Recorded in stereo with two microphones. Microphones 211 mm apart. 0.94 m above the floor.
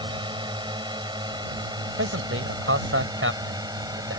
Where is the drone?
20° right (ahead or behind); by 4.2 s 15° right (ahead or behind).